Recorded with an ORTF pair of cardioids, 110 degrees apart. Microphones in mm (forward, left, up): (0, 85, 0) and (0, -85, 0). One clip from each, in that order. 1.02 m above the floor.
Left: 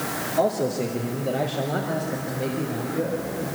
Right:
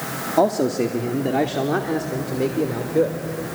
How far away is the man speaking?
About 2 m.